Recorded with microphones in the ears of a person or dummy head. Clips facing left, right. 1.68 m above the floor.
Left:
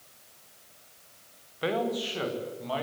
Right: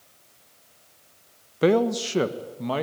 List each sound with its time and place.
1.6 s a man speaking: 55° right (ahead or behind), 1.2 m; by 2.8 s 60° right (ahead or behind), 2.5 m